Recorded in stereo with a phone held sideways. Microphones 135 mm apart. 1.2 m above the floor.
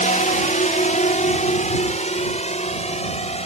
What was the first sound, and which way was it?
A drone, 65° left (ahead or behind).